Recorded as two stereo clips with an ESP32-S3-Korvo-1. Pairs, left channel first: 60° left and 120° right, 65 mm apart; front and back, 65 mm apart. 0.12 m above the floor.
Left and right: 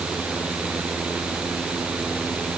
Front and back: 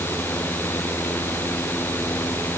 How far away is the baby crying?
I don't hear a baby crying.